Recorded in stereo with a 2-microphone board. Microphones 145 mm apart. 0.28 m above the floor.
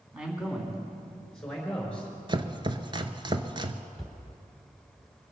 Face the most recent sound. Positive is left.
turn(degrees=0)  # may be behind; listen again after turning